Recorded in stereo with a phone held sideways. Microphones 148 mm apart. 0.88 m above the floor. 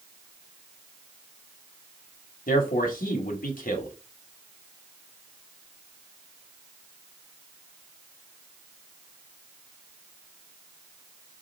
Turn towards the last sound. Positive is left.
turn(degrees=70)  # may be behind; listen again after turning